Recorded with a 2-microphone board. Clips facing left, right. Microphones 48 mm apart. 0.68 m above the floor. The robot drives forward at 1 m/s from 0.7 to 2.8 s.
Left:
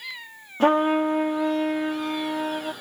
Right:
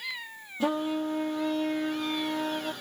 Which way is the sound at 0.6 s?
50° left (ahead or behind).